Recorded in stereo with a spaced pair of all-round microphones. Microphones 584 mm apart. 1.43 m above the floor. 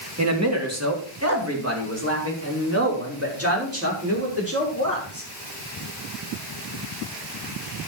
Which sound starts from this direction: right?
A man speaking, at 0.2 s.